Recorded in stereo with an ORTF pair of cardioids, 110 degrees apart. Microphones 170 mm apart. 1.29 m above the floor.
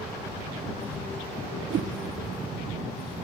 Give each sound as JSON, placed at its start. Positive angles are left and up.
{"t": 1.7, "sound": "a whoosh", "azimuth_deg": -55, "distance_m": 0.7}